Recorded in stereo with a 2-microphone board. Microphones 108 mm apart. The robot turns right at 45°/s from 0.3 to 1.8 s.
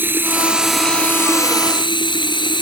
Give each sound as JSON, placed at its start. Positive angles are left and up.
{"t": 0.0, "sound": "running water", "azimuth_deg": -20}